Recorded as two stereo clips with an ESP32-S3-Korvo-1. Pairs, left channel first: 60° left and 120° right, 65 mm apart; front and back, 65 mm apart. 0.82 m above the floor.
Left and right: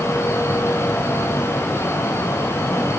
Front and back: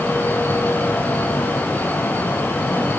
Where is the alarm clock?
No alarm clock in this recording.